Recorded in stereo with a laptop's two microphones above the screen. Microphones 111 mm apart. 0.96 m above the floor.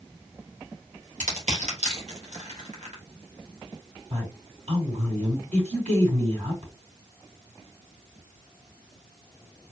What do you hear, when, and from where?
1.2 s crushing: 85° right, 2 m
4.1 s a woman speaking: 70° right (ahead or behind), 3.5 m